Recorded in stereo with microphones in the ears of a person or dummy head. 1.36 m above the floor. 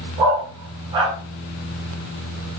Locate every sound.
0.2 s a dog barking: 20° right (ahead or behind), 1.7 m